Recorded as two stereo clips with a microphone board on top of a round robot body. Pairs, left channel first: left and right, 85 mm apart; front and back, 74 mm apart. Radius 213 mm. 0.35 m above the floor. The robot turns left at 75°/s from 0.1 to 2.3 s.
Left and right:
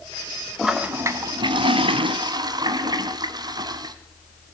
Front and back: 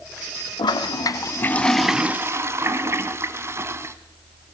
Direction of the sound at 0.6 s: Straight ahead.